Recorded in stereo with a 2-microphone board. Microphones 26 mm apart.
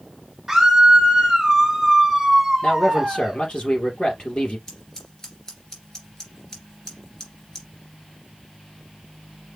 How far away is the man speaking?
About 3.5 m.